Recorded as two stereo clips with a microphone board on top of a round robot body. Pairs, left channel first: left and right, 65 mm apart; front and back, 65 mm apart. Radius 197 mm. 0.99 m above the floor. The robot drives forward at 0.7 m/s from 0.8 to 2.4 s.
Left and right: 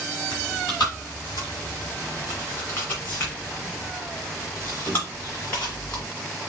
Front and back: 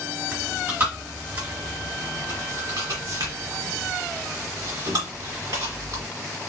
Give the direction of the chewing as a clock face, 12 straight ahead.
8 o'clock.